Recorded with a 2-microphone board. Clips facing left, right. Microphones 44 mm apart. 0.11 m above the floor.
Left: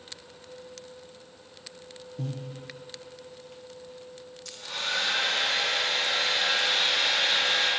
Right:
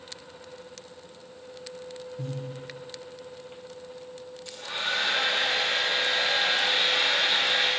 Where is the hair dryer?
20° right (ahead or behind), 4.5 m.